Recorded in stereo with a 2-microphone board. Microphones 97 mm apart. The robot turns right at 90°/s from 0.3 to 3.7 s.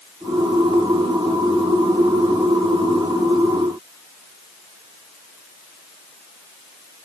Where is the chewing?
No chewing in this recording.